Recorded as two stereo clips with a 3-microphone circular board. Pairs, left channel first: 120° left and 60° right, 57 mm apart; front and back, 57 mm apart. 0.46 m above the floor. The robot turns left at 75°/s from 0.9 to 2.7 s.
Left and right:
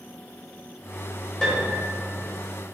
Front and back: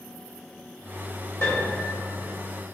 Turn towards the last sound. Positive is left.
turn(degrees=-55)